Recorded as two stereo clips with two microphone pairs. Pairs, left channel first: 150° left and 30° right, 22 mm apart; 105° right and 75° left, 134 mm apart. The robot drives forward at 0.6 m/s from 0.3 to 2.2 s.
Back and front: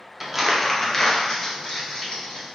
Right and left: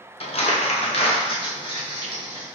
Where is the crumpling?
100° right, 0.5 m; by 2.5 s 160° right, 1.3 m.